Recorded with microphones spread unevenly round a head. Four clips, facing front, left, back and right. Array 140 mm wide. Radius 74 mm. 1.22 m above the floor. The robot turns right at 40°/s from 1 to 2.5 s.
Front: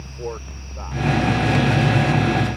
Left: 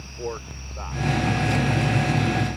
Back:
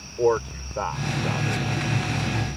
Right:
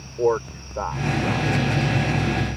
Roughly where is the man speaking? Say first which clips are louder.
Right 12 dB, back 10 dB; behind right.